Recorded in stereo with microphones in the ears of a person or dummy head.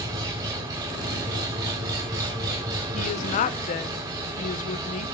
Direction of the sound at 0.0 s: 20° right (ahead or behind).